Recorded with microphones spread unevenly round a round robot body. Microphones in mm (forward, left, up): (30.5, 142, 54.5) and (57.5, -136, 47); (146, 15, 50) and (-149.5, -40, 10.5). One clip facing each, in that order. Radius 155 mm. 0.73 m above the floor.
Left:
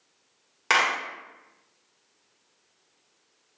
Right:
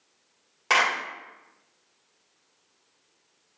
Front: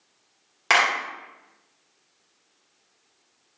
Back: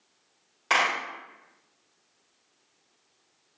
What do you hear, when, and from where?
0.7 s a clap: 35° left, 1.6 m